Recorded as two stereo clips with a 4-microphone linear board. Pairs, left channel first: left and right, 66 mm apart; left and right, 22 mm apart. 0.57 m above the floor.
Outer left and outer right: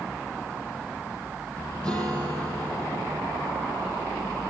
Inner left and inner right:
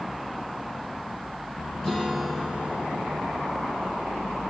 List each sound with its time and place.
1.8 s a guitar: 20° left (ahead or behind), 6 m